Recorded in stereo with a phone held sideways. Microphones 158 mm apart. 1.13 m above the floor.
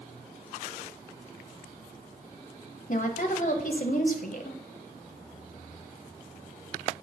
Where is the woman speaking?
55° left (ahead or behind), 1.0 m.